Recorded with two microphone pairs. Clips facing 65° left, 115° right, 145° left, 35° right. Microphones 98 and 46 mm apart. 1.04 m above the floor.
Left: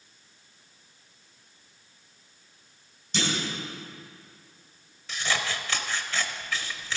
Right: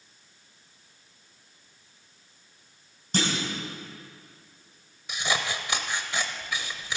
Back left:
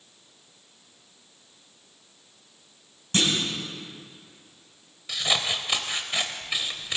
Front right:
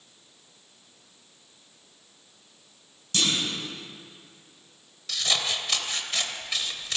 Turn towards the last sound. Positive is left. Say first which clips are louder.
# right 1 dB, back left 2 dB
turn(degrees=-160)